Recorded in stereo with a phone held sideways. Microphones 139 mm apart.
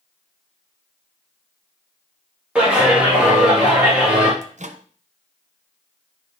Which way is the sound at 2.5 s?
10° right (ahead or behind).